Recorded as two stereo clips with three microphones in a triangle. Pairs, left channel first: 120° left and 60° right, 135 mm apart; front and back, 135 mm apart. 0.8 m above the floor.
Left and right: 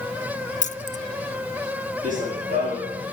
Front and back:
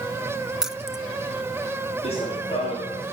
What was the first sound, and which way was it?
Keys jangling, 95° left.